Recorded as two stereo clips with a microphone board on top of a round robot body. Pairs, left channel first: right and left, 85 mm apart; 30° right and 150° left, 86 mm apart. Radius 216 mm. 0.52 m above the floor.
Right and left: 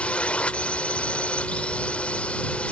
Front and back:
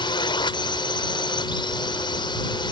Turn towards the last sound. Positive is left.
turn(degrees=-15)